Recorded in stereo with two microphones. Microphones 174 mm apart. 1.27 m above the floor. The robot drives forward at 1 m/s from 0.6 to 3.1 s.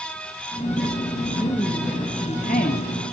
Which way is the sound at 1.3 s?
25° left (ahead or behind).